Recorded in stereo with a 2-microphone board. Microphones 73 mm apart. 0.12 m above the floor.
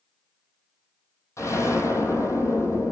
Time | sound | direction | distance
1.4 | an explosion | 45° left (ahead or behind) | 3.5 m